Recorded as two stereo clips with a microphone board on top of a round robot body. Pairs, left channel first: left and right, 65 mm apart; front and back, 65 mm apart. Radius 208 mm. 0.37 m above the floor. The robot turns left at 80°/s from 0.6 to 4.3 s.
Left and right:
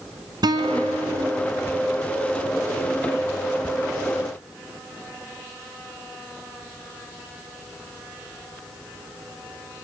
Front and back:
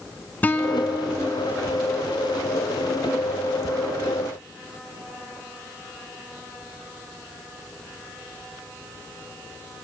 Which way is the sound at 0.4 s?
65° right.